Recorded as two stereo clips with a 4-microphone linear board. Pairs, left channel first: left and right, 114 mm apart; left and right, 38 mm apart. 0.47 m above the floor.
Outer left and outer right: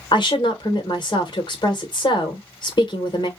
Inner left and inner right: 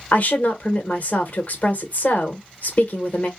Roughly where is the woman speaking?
Left.